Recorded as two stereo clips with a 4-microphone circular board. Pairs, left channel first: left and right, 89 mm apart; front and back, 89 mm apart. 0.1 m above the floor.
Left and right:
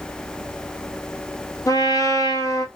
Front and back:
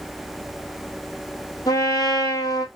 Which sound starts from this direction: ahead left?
A trumpet, at 1.7 s.